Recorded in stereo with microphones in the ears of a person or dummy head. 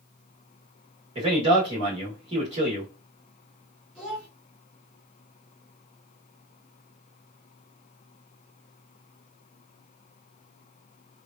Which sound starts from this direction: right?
A man speaking, at 1.1 s.